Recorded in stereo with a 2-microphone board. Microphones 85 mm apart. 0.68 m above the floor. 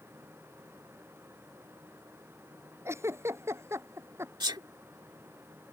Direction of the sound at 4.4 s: 60° right (ahead or behind).